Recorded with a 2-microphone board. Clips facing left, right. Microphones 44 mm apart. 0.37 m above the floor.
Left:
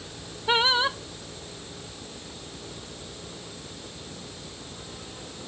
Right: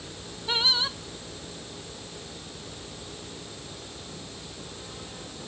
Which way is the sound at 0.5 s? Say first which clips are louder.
Left 5 dB; 35° left (ahead or behind).